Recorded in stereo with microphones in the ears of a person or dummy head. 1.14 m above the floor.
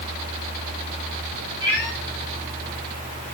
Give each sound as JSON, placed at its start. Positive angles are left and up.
{"t": 1.6, "sound": "a cat meowing", "side_deg": 10, "distance_m": 3.5}